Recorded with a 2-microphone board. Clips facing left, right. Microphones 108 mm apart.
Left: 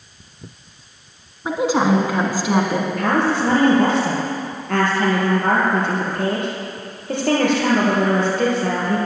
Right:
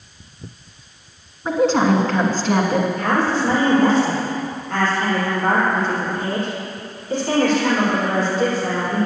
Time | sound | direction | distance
1.4 | a woman speaking | 10° left (ahead or behind) | 1.2 m
3.0 | a woman speaking | 65° left (ahead or behind) | 4 m